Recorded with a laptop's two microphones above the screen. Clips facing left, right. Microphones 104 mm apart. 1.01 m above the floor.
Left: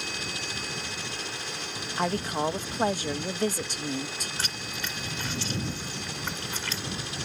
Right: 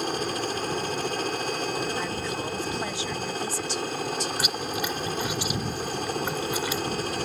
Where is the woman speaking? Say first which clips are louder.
Left 2 dB; 45° left (ahead or behind).